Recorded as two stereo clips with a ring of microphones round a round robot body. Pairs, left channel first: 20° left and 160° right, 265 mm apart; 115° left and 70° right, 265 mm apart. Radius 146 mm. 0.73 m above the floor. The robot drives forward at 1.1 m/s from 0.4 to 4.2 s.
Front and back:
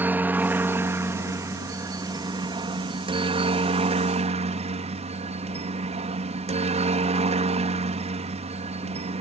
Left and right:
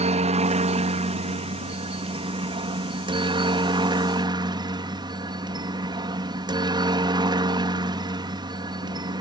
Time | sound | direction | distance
0.0 | a helicopter | 85° right | ?